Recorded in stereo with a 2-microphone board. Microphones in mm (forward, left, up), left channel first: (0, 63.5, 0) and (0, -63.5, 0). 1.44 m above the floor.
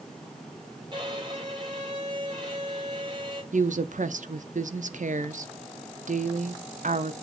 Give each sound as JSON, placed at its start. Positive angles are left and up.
{"t": 0.9, "sound": "a violin", "side_deg": -35, "distance_m": 3.5}
{"t": 3.5, "sound": "a woman speaking", "side_deg": -85, "distance_m": 0.6}